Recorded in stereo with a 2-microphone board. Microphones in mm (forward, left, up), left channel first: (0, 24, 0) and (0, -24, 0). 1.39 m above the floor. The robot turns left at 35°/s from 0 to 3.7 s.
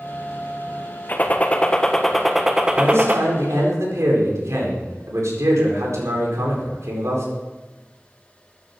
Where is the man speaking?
60° right, 4 m; by 7.3 s 95° right, 4 m.